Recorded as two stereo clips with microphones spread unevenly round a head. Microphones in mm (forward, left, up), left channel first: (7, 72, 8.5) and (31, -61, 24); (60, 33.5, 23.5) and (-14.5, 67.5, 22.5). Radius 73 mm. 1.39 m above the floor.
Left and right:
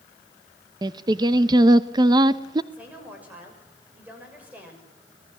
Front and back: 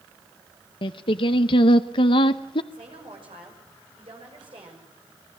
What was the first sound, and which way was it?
Singing, 30° right.